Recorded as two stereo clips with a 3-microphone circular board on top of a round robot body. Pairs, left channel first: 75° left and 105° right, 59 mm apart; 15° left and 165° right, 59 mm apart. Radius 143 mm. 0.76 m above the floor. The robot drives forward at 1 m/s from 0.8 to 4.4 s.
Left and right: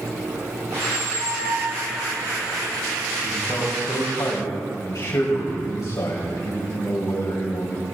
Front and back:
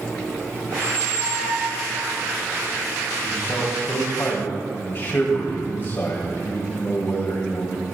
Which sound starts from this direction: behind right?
A squeak, at 0.7 s.